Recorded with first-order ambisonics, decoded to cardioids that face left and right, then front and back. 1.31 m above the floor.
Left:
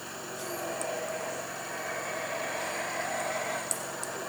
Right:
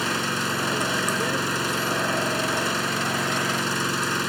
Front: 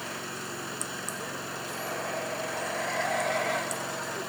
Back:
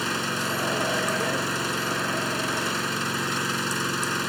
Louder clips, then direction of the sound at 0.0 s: Right 14 dB, back 10 dB; 125° right.